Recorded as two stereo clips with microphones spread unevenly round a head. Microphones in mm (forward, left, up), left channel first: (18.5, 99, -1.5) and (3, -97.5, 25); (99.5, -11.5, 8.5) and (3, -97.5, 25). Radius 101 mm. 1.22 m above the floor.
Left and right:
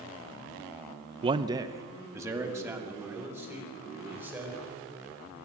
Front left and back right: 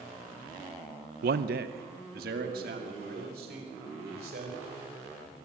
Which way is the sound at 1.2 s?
160° right.